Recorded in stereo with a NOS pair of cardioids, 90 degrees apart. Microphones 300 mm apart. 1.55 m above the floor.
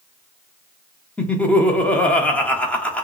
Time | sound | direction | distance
1.2 | laughter | 5° left | 0.8 m